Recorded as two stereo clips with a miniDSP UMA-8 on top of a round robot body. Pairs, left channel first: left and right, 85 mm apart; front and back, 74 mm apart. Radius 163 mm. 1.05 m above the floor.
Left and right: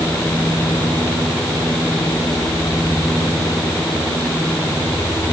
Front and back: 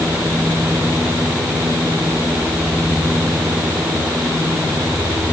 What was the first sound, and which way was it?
Only background noise.